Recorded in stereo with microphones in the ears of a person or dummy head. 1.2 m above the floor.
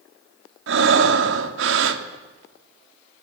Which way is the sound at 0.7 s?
80° right.